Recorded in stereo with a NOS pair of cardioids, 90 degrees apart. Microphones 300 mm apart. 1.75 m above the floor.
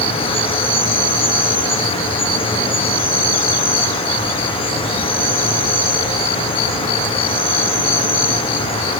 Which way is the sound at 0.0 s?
20° left.